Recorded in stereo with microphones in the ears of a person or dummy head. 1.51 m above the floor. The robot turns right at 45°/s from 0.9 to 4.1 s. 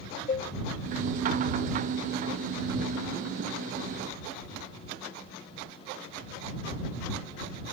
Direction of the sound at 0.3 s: 40° left (ahead or behind).